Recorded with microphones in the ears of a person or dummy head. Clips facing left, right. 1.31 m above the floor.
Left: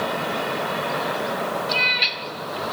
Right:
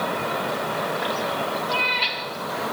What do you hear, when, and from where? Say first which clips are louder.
1.7 s a cat meowing: right 1 dB; 30° left (ahead or behind), 2.5 m